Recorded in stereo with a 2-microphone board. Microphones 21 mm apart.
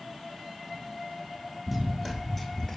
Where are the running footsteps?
5° right (ahead or behind), 0.8 m; by 2.8 s 25° left (ahead or behind), 0.5 m.